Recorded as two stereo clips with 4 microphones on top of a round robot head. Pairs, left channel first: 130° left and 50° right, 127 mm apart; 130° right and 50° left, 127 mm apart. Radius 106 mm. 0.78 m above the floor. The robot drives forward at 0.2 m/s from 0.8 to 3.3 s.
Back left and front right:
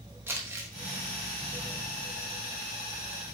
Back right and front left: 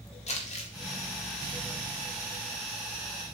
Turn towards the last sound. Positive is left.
turn(degrees=-145)